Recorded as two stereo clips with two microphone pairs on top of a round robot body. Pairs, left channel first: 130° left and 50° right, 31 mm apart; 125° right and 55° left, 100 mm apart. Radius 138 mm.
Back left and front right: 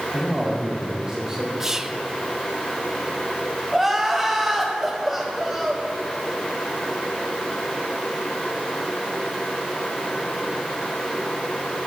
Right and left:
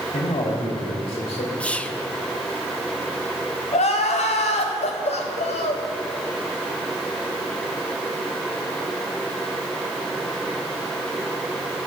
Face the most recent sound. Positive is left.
turn(degrees=-135)